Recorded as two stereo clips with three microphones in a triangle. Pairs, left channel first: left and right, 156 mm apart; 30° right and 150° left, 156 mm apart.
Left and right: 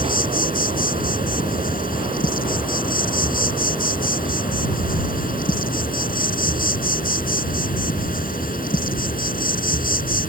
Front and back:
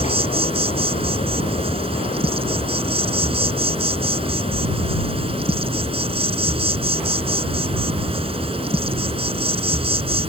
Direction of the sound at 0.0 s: 100° left.